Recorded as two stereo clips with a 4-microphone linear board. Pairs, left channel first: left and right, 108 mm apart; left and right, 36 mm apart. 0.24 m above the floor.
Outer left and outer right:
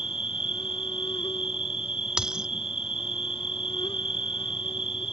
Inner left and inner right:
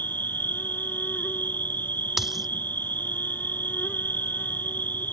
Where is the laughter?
I don't hear laughter.